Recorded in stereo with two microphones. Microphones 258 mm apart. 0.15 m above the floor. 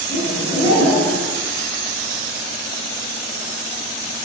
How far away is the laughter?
About 1.9 m.